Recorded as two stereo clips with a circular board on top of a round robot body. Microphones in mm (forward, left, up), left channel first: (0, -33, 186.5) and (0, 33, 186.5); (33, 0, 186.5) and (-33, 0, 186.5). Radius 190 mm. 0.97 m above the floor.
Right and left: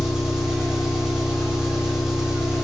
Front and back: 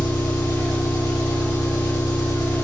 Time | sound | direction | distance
0.0 | an engine running | 10° left | 6 m